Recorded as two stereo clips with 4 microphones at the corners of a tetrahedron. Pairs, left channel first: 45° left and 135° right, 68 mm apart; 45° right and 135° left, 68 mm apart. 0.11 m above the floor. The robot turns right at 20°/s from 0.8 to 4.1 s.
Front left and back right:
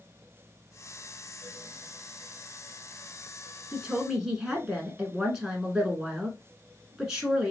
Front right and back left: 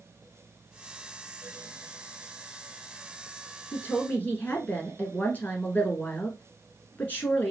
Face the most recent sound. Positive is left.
turn(degrees=-65)